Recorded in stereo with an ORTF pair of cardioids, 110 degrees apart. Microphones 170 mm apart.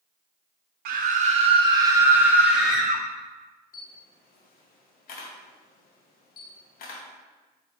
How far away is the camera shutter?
About 0.9 m.